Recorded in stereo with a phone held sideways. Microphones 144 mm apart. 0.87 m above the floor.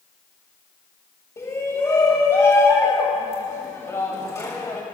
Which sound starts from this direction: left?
A shout, at 1.4 s.